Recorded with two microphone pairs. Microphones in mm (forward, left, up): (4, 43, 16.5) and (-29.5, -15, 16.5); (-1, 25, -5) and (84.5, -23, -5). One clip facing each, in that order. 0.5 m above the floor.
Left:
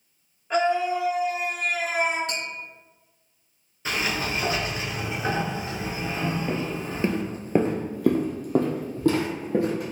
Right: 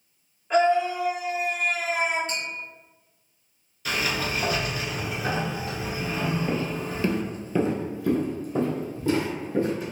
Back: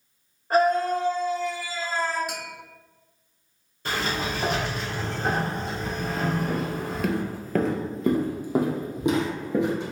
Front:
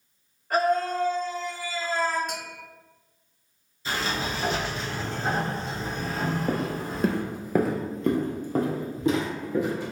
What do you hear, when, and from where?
0.5 s a scream: 150° left, 1.1 m; by 2.2 s 55° left, 2.5 m
2.3 s tapping: 65° left, 1.2 m
3.9 s a sliding door: 120° left, 1.3 m
6.5 s footsteps: 30° right, 0.7 m; by 9.9 s 85° left, 1.7 m